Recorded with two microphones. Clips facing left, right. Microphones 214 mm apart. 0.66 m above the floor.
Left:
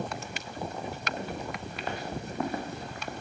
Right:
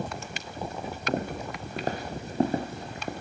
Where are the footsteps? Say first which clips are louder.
Right 8 dB; 50° right (ahead or behind), 3.5 m; by 3.1 s 20° right (ahead or behind), 3.5 m.